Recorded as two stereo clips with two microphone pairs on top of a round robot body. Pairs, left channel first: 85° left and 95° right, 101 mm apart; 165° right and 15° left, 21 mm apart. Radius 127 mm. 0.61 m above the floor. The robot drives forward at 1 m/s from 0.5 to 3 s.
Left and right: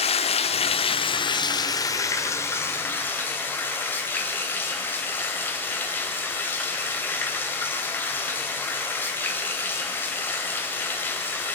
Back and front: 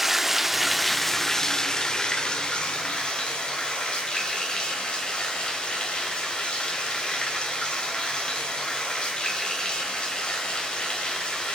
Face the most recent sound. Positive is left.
turn(degrees=155)